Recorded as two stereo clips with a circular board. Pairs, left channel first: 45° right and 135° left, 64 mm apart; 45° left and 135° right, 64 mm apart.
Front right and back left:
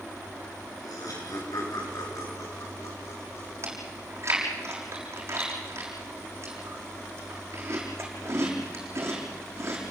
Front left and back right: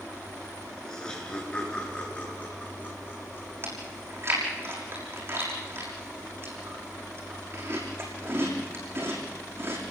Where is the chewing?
175° left, 6 m.